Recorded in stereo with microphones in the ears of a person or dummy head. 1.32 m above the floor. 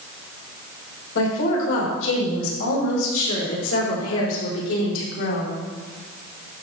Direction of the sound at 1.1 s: 75° left (ahead or behind).